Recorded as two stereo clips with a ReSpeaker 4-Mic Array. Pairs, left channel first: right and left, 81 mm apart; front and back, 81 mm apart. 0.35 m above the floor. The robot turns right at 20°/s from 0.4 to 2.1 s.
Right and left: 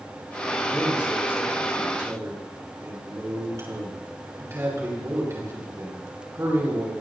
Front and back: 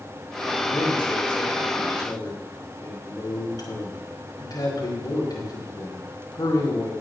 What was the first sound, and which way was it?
A man speaking, 5° left.